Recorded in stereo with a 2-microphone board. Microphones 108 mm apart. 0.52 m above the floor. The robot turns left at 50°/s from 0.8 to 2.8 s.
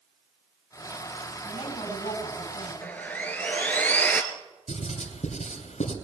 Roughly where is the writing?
Left.